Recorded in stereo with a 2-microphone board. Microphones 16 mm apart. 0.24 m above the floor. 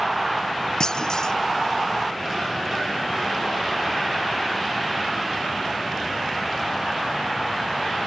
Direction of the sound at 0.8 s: 50° left (ahead or behind).